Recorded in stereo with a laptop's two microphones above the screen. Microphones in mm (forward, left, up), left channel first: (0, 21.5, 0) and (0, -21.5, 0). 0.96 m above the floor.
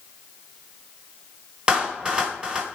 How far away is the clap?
About 1.3 m.